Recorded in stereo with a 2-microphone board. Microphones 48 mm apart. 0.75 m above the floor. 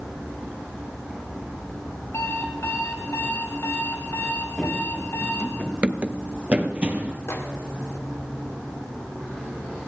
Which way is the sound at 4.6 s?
5° left (ahead or behind).